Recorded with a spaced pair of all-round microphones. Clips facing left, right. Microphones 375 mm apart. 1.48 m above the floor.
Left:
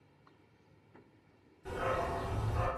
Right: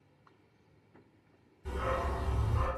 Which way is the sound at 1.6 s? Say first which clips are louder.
Even; 5° right (ahead or behind).